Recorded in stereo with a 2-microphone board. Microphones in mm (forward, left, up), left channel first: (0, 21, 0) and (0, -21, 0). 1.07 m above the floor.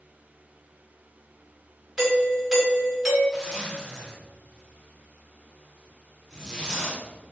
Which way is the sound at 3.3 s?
15° left (ahead or behind).